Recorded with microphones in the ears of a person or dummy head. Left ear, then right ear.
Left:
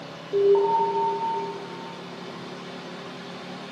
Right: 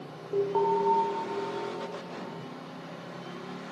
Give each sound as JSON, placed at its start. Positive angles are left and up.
{"t": 0.3, "sound": "an alarm", "side_deg": -5, "distance_m": 1.0}